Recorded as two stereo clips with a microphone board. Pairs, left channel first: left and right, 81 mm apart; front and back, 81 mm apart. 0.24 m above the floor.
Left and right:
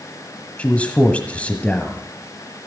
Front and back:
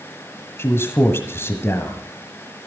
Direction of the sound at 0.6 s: 30° left.